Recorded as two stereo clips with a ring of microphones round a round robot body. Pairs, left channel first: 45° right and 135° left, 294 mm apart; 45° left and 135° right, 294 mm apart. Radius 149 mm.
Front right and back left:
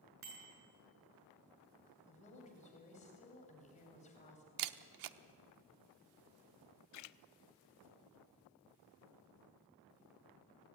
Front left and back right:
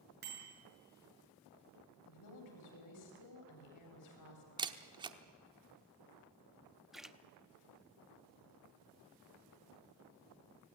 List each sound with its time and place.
0.2 s a bicycle bell: 170° left, 6.5 m
2.1 s a woman speaking: 20° left, 3.5 m
4.6 s a camera shutter: 150° left, 0.9 m
6.9 s a splash: 45° right, 0.7 m